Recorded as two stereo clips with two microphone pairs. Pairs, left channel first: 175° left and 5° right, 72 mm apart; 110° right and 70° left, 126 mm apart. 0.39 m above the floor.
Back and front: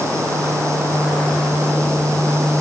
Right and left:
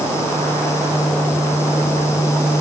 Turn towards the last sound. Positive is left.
No sound to turn to.